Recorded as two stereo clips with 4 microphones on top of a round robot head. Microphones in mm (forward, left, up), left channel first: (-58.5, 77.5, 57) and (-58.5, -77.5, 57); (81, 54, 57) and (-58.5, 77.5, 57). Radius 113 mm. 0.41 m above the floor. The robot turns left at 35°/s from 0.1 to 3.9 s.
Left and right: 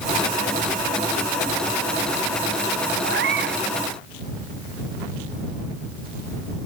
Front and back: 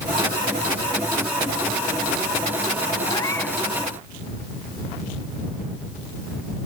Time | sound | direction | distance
3.0 | a cat meowing | 80° right | ?